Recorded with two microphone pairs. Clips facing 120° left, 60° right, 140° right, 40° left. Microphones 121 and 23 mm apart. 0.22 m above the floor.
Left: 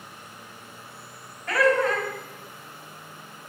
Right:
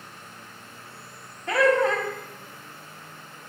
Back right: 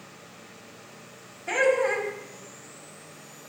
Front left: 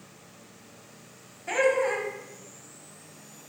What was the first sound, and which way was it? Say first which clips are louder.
Laughter: right 1 dB, back right 1 dB; 50° right.